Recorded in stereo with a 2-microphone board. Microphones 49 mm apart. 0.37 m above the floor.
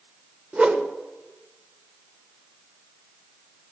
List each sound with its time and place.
0.5 s a whoosh: 25° right (ahead or behind), 1.1 m